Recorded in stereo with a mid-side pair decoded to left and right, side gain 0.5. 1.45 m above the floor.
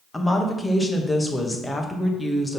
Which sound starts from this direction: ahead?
A woman speaking, at 0.1 s.